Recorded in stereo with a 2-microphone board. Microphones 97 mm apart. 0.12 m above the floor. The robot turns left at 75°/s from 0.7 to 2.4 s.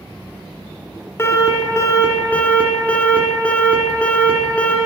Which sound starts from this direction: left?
An alarm, at 1.2 s.